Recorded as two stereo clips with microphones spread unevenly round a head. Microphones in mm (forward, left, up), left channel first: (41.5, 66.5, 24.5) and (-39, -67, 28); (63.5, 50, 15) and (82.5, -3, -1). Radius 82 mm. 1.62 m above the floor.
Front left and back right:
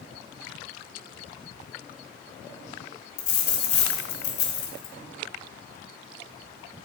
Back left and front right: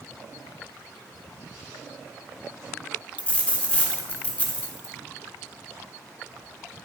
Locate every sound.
3.2 s a dropped coin: 95° left, 1.7 m